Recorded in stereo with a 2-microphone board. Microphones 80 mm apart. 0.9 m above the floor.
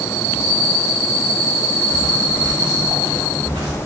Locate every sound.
1.9 s footsteps: 65° right (ahead or behind), 2.5 m; by 3.8 s 75° right (ahead or behind), 3.5 m